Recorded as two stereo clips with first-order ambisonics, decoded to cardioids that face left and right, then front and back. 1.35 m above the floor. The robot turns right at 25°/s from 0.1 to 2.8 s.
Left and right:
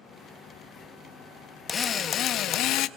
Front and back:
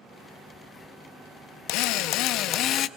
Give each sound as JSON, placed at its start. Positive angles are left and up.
{"t": 1.7, "sound": "a drill", "azimuth_deg": 20, "distance_m": 0.5}